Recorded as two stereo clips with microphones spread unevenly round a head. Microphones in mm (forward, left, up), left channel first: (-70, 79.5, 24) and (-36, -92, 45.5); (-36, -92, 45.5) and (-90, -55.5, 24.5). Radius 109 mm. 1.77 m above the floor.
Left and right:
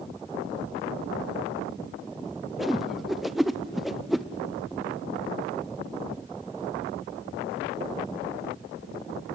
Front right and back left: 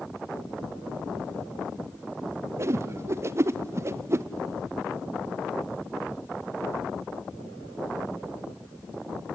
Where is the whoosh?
160° right, 0.6 m.